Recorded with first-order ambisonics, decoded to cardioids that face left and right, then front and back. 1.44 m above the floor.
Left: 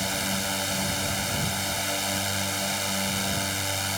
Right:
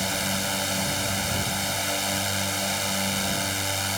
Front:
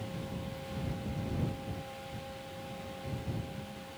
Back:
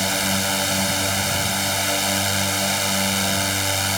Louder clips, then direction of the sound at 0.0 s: Right 1 dB, back 21 dB; straight behind.